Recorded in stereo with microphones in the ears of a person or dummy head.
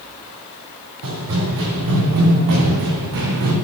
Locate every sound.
1.0 s running footsteps: 75° right (ahead or behind), 5 m; by 3.5 s 65° right (ahead or behind), 3.5 m